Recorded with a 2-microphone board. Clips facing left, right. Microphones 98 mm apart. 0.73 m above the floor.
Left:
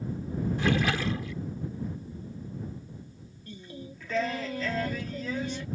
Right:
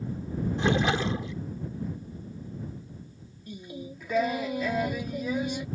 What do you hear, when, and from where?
0.6 s a splash: 25° right (ahead or behind)
3.5 s singing: 15° right (ahead or behind)